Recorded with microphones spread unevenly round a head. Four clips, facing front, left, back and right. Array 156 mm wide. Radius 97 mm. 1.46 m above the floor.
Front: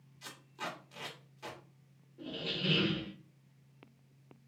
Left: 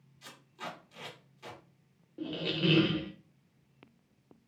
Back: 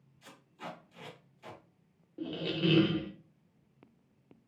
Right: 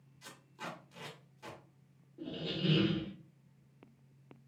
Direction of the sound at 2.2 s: 140° left.